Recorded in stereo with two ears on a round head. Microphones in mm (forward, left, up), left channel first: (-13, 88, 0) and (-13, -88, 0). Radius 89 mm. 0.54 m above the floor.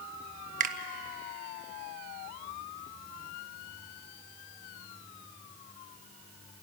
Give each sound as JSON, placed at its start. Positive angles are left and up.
{"t": 0.6, "sound": "a finger snap", "side_deg": -40, "distance_m": 1.0}